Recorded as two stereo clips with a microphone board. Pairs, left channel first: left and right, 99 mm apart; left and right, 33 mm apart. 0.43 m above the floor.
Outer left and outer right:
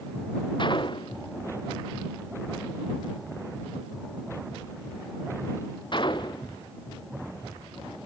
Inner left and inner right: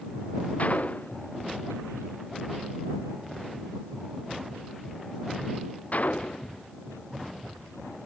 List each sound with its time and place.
0.6 s a gunshot: 50° left (ahead or behind)